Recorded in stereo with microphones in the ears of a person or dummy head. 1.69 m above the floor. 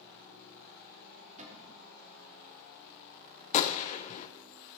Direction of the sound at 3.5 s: 35° left (ahead or behind).